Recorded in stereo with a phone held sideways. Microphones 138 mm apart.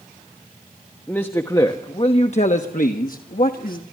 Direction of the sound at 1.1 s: 10° left (ahead or behind).